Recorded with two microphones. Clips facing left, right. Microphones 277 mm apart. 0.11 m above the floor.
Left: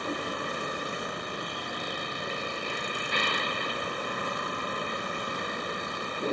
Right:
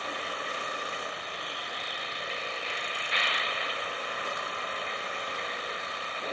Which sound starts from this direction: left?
A vehicle, at 0.0 s.